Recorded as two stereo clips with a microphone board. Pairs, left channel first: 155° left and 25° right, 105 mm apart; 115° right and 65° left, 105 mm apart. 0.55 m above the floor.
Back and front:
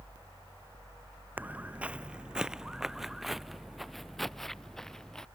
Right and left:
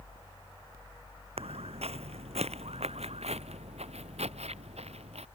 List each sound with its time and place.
1.4 s footsteps: 50° left; by 5.3 s 75° left